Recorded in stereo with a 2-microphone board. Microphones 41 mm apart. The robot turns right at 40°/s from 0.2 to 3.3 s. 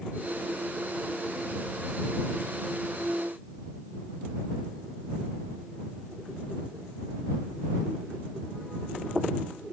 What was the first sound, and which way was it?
Only background noise.